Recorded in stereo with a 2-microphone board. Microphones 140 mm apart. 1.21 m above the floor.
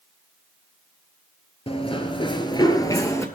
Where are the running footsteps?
40° left (ahead or behind), 1.5 m; by 3.2 s 20° left (ahead or behind), 1.6 m.